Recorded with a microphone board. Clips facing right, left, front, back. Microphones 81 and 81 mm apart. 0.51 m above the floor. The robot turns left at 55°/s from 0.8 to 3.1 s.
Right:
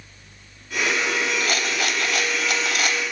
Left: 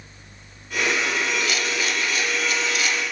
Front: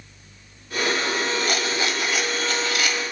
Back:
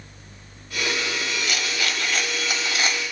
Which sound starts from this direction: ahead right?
A rattle, at 1.4 s.